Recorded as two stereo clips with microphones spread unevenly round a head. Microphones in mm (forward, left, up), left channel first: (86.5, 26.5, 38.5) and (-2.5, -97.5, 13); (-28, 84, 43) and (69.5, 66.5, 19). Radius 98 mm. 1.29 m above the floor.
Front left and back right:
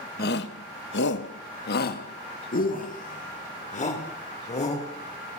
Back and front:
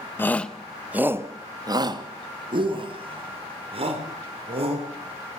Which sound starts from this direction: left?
A shout, at 0.2 s.